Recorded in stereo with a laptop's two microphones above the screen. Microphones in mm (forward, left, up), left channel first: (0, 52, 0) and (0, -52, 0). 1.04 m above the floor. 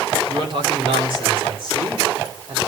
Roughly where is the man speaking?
Right.